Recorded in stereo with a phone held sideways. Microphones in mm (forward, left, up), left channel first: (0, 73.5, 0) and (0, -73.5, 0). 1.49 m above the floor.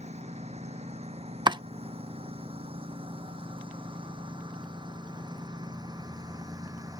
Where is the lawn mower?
50° right (ahead or behind); by 7.0 s 25° right (ahead or behind).